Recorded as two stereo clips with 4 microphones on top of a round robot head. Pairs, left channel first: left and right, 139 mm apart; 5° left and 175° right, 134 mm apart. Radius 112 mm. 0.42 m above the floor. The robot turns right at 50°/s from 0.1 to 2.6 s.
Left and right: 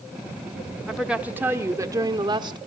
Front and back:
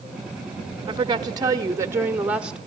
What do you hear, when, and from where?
0.9 s a woman speaking: straight behind, 0.9 m; by 2.6 s 95° right, 0.9 m